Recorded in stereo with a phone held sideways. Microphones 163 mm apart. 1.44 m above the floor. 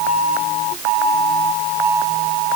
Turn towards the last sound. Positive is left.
No sound to turn to.